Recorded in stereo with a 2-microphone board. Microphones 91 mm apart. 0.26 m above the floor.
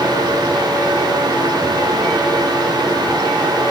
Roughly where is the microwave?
No microwave in this recording.